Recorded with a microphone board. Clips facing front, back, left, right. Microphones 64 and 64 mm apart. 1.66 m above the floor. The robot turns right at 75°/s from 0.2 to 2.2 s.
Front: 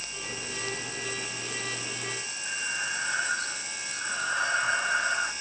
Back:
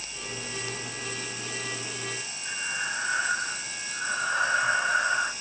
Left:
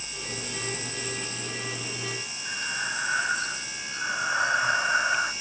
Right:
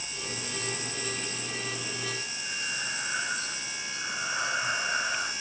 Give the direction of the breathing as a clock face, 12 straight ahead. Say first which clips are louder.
Back 1 dB, left 5 dB; 9 o'clock.